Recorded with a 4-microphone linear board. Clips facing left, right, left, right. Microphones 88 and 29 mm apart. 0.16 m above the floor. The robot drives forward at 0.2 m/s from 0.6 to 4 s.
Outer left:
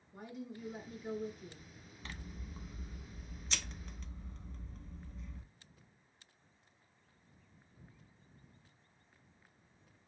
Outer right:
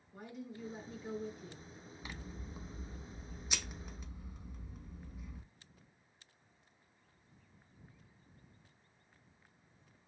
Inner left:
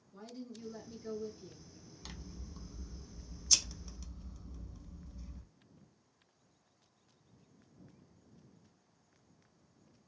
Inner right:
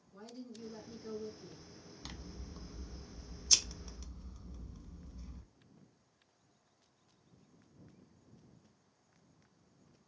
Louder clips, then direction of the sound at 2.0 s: Even, inner right 1 dB; 10° right (ahead or behind).